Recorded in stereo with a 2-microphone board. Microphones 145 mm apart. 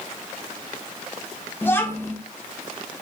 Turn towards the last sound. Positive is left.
turn(degrees=15)  # may be behind; listen again after turning